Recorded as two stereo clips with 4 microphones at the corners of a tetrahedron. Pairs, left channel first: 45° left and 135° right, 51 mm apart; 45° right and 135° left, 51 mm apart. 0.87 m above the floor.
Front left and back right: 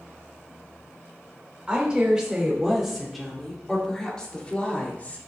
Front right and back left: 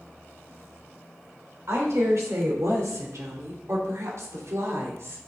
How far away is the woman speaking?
About 3.5 m.